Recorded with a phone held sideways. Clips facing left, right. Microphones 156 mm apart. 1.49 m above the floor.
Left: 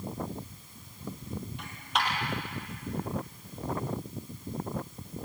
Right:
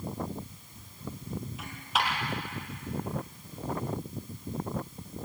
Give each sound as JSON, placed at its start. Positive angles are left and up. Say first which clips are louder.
{"t": 1.6, "sound": "a dropped coin", "louder": "even", "side_deg": 0, "distance_m": 5.5}